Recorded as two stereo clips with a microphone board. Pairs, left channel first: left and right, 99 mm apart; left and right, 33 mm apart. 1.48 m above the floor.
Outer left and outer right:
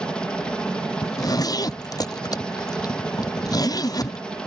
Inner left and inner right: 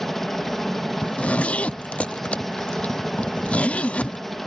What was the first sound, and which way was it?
A helicopter, 10° left (ahead or behind).